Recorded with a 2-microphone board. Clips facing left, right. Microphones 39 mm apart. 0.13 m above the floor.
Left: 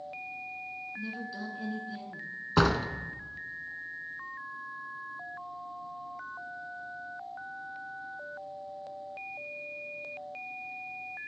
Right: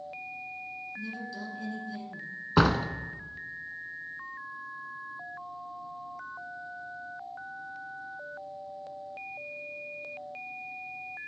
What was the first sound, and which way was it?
A woman speaking, 15° left (ahead or behind).